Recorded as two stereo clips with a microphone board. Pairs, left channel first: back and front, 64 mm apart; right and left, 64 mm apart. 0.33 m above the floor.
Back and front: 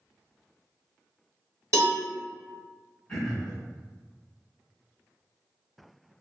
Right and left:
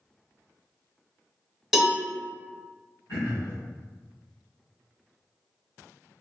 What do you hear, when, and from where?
1.7 s a cowbell: straight ahead, 1.1 m
3.1 s throat clearing: 110° right, 2.0 m